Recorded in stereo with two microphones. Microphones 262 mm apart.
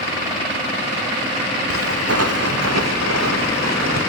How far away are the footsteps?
About 3.5 m.